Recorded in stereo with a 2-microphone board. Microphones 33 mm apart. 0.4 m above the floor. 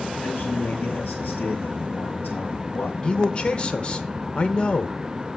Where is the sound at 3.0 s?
30° left (ahead or behind), 0.9 m.